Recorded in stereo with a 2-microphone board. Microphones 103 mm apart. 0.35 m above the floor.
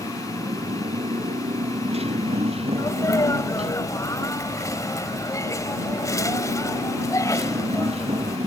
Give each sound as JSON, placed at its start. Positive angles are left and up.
{"t": 0.0, "sound": "a motorcycle", "side_deg": -80}
{"t": 2.8, "sound": "a sneeze", "side_deg": 35}